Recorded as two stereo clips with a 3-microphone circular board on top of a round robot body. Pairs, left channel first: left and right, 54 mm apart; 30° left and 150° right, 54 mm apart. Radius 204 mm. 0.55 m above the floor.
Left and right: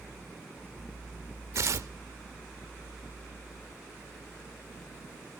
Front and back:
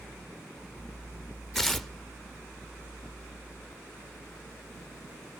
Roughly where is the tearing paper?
Ahead right.